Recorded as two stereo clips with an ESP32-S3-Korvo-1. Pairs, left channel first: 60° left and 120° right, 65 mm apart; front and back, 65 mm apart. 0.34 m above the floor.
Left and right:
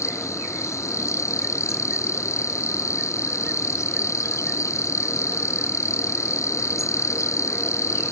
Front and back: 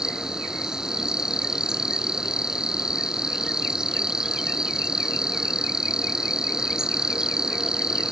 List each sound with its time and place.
0.0 s an insect: 105° left